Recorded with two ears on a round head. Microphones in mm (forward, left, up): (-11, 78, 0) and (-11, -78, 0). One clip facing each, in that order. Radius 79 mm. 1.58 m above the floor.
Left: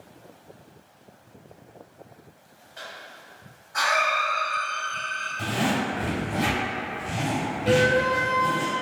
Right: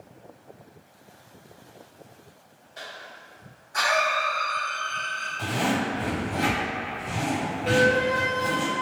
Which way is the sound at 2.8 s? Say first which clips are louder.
Even; 40° right (ahead or behind).